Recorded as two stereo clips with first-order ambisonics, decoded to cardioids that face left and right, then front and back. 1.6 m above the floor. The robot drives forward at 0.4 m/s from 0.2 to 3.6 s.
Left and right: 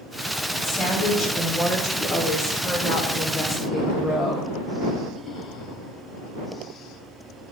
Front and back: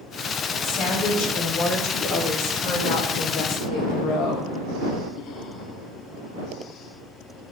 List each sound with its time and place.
0.6 s a woman speaking: 15° left, 3.5 m; by 4.5 s 25° left, 2 m